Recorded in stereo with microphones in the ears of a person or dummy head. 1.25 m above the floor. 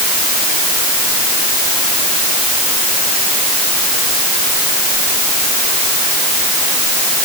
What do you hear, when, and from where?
Only background noise.